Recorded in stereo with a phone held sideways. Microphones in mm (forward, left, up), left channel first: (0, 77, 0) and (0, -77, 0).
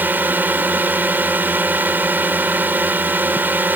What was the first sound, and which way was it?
A drone, 10° right (ahead or behind).